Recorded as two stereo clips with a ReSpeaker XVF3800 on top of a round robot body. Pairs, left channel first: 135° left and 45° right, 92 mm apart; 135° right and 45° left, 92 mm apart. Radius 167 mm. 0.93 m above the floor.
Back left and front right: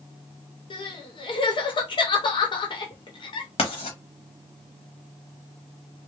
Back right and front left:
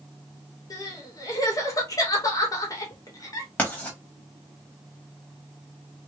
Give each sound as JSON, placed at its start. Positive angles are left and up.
{"t": 0.7, "sound": "crying", "azimuth_deg": 170, "distance_m": 0.8}
{"t": 3.6, "sound": "writing", "azimuth_deg": 150, "distance_m": 1.0}